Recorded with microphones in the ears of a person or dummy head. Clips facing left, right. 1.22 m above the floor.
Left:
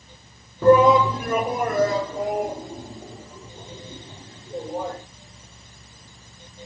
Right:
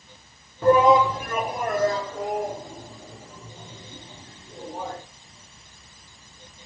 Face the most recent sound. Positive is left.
turn(degrees=50)  # may be behind; listen again after turning